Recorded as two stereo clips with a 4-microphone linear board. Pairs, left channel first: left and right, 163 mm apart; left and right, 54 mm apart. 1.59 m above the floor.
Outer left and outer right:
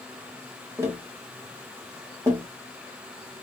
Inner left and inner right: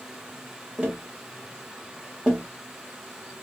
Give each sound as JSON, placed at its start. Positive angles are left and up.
{"t": 0.8, "sound": "tapping", "side_deg": -20, "distance_m": 1.1}